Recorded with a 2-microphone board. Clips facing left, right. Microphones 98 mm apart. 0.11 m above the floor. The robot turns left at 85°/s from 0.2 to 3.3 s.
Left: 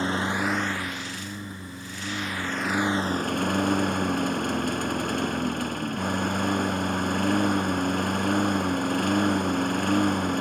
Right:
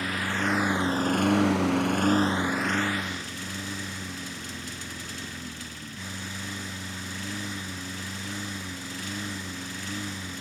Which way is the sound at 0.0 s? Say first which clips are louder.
Left 3 dB; 25° left.